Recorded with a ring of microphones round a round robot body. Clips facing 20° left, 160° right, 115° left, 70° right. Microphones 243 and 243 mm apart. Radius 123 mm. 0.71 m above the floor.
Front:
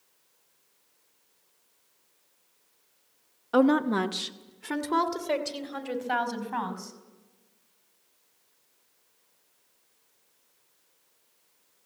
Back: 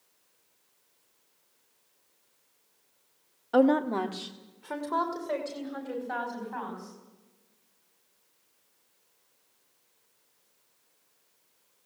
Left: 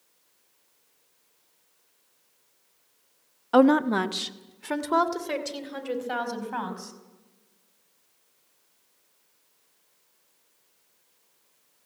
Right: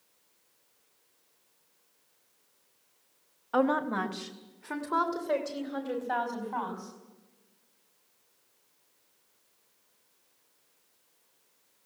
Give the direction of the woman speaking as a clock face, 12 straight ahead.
8 o'clock.